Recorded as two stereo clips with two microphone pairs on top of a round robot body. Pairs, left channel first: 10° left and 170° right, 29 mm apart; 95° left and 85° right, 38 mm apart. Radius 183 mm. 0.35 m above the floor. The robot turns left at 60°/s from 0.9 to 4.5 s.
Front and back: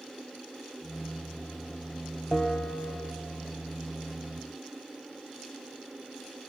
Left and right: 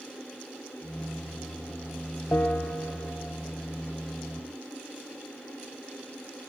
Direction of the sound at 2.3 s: 65° left.